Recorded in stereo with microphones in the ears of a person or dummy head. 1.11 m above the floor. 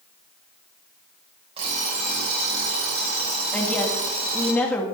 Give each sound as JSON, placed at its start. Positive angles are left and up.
{"t": 1.6, "sound": "an alarm clock", "side_deg": -35, "distance_m": 3.5}
{"t": 3.5, "sound": "a woman speaking", "side_deg": 10, "distance_m": 1.8}